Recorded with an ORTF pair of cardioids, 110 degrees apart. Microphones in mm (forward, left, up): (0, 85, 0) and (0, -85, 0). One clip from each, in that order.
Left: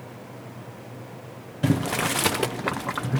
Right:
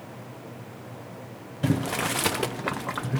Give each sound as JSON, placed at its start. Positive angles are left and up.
{"t": 1.6, "sound": "boiling", "azimuth_deg": 10, "distance_m": 0.6}